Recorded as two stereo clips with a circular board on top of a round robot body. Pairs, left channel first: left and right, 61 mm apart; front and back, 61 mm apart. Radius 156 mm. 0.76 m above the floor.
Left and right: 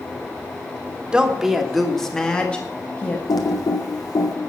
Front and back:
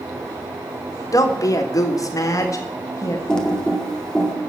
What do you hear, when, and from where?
1.1 s a woman speaking: 15° right, 1.8 m; by 3.2 s 30° left, 1.9 m
3.3 s typing on a keyboard: 80° left, 2 m